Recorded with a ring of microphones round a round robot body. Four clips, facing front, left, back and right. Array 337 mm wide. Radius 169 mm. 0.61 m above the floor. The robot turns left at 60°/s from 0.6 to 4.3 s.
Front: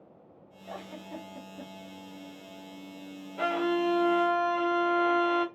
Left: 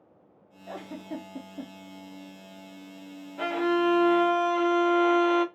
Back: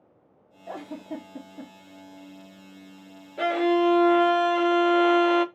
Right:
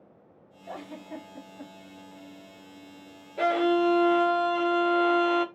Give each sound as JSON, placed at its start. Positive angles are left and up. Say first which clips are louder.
{"t": 0.7, "sound": "a giggle", "louder": "left 2 dB, back 6 dB", "azimuth_deg": 170, "distance_m": 1.3}
{"t": 3.4, "sound": "a violin", "louder": "right 2 dB, back 6 dB", "azimuth_deg": -125, "distance_m": 0.9}